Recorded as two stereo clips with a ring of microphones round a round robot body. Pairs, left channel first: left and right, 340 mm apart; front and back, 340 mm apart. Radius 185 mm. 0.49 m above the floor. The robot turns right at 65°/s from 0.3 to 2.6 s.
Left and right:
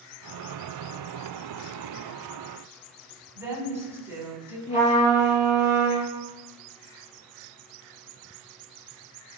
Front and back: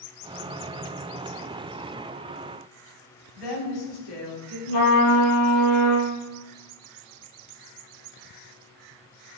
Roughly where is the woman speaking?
Ahead.